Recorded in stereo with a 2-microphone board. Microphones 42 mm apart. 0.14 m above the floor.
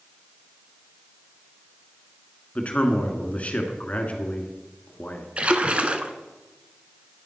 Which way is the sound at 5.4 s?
30° right (ahead or behind).